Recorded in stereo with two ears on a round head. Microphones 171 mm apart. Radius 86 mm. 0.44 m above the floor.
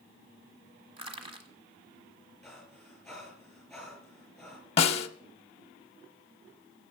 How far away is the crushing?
About 1.3 m.